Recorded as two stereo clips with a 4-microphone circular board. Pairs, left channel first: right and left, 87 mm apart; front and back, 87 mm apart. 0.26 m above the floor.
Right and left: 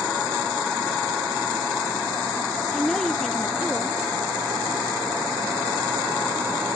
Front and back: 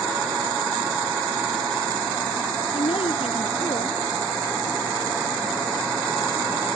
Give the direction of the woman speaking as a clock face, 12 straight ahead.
12 o'clock.